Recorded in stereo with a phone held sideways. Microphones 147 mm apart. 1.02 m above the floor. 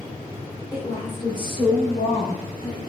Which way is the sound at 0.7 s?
25° left (ahead or behind).